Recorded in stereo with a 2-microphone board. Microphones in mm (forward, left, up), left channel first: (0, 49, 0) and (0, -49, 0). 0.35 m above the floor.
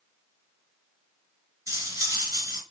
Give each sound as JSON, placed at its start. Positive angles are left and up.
{"t": 1.7, "sound": "cutlery clinking", "side_deg": -30, "distance_m": 2.0}